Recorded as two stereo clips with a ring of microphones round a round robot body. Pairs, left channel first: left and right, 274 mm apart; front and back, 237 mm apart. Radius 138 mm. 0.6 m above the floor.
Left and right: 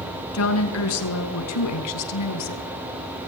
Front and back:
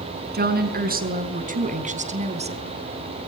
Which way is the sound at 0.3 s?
130° left.